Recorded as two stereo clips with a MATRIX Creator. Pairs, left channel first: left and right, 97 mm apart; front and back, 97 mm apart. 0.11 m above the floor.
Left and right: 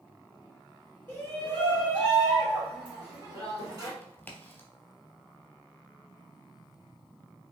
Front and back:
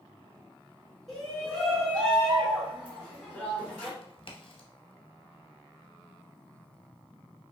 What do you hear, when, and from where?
1.1 s a shout: 90° left, 1.7 m; by 3.9 s 65° right, 1.9 m
4.0 s a crack: 20° left, 0.7 m